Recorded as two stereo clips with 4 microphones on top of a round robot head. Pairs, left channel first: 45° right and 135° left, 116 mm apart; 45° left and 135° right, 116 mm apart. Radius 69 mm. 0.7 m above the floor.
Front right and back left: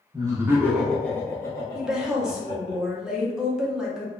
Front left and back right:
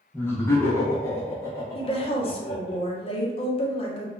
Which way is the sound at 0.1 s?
110° left.